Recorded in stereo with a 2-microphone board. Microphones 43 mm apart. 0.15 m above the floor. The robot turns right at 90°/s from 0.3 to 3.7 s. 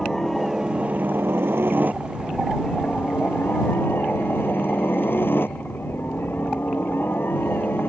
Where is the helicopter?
165° left; by 7.9 s 110° left.